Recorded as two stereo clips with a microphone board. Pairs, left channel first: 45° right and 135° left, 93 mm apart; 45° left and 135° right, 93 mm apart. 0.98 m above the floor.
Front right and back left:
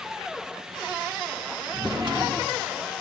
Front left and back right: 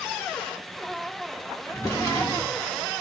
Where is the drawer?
100° left, 1.3 m.